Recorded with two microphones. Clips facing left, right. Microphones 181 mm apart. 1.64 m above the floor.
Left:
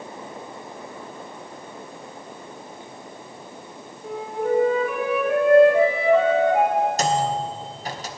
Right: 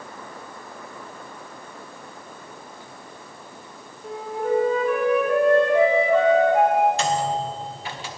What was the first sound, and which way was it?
A flute, 5° left (ahead or behind).